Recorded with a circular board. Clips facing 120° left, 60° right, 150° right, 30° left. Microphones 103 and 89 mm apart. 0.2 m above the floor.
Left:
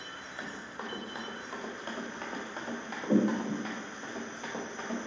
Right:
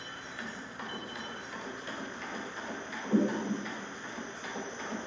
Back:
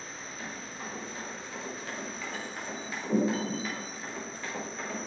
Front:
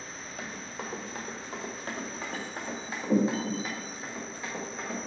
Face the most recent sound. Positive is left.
turn(degrees=110)